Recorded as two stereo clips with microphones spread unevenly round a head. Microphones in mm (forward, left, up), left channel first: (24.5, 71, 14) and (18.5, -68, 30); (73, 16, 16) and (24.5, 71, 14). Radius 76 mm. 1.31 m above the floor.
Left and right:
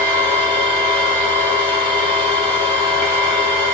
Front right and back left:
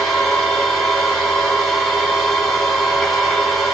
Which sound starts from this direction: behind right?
A machine running, at 0.0 s.